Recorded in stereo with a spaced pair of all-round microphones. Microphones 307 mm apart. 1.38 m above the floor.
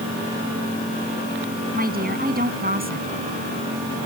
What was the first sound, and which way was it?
A woman speaking, 25° right (ahead or behind).